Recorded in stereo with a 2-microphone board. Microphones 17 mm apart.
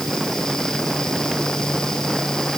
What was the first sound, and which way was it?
Only background noise.